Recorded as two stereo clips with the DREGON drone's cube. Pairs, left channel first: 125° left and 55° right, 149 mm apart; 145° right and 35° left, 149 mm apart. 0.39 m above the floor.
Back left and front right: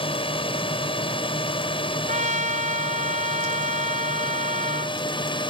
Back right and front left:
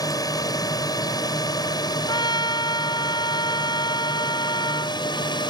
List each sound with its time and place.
0.0 s a drone: 160° left; by 5.5 s 165° left
2.1 s a trumpet: 85° right